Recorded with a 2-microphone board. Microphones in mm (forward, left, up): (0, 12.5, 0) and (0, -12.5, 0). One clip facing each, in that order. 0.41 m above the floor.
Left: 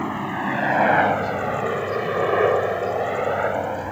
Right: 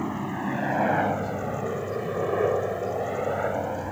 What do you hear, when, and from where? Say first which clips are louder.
0.0 s a helicopter: left 4 dB; 35° left (ahead or behind); by 3.9 s 20° left (ahead or behind)